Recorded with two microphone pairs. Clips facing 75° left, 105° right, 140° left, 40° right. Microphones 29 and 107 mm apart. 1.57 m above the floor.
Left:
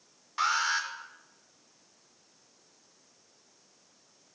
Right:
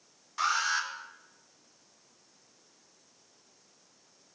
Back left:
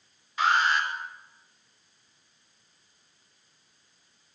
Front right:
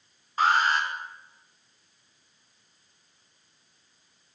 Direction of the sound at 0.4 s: 10° left.